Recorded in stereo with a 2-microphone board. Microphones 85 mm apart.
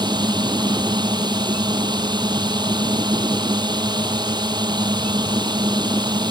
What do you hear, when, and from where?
0.0 s a drone: 55° right (ahead or behind)